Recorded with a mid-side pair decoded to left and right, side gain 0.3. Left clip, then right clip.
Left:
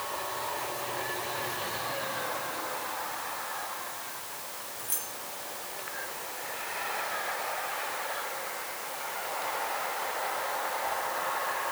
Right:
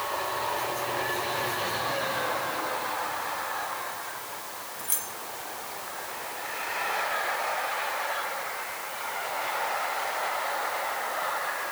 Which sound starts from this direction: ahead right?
Keys jangling, at 4.8 s.